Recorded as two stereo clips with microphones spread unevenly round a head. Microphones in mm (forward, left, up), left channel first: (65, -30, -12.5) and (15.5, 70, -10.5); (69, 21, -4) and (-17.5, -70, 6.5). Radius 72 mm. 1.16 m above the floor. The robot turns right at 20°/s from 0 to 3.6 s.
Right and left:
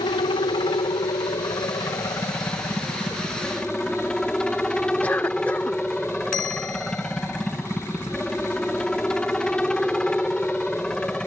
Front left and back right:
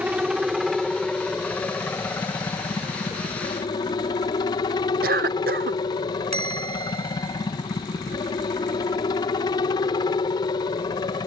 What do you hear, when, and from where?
0.0 s a helicopter: 55° right; by 11.3 s 15° left
5.0 s a cough: 145° right
6.3 s a bell: 95° right